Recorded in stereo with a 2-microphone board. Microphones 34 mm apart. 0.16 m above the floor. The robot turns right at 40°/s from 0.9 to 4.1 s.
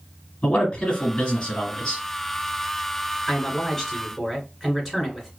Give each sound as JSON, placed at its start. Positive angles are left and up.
{"t": 0.4, "sound": "a man speaking", "azimuth_deg": 90, "distance_m": 1.4}
{"t": 3.3, "sound": "a man speaking", "side_deg": 15, "distance_m": 1.4}